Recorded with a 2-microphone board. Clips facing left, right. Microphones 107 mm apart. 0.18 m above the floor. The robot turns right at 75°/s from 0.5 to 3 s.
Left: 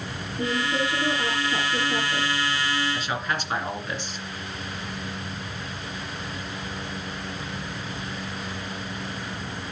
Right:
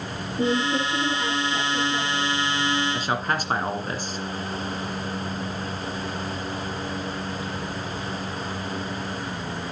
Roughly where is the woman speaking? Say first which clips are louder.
Right 3 dB; ahead right.